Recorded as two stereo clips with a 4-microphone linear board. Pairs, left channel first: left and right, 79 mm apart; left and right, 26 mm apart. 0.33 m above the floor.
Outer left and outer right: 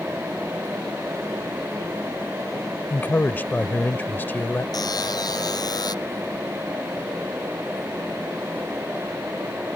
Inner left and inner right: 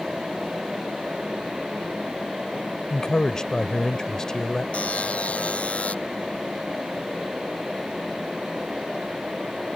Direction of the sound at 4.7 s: 55° left (ahead or behind).